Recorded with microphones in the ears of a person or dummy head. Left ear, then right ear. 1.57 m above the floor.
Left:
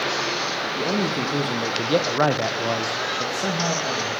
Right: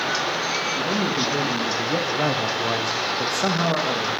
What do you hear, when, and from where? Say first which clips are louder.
0.8 s a man speaking: right 1 dB; 75° left (ahead or behind), 2.0 m; by 4.1 s 30° right (ahead or behind), 2 m